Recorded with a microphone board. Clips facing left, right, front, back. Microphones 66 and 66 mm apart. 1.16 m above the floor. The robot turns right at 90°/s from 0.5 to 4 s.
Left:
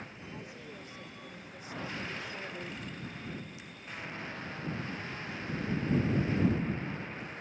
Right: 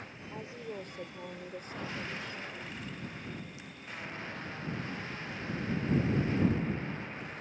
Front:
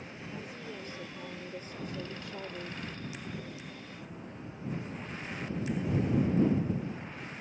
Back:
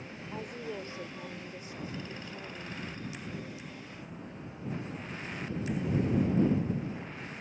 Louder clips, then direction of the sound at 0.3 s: Right 8 dB, back 5 dB; 150° right.